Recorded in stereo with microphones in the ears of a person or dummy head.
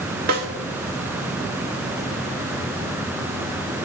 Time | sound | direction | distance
0.3 | a snare drum | 45° right (ahead or behind) | 1.3 m